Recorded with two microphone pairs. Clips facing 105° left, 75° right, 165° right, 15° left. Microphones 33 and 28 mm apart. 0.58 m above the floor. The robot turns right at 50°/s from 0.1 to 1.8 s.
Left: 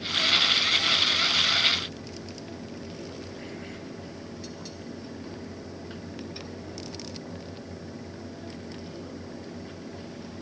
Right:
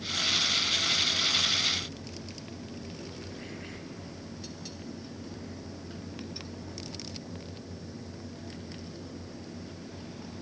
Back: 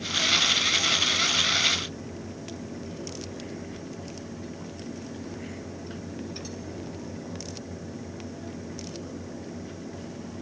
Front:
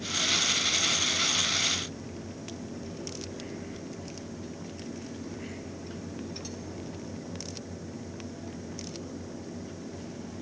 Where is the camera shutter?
I don't hear a camera shutter.